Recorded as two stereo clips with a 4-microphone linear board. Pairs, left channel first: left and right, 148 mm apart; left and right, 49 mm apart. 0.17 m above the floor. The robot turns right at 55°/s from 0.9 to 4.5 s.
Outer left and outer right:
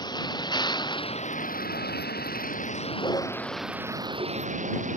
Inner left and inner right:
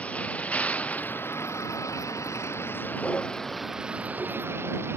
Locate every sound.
0.0 s a vehicle: 25° left (ahead or behind); by 5.0 s 50° right (ahead or behind)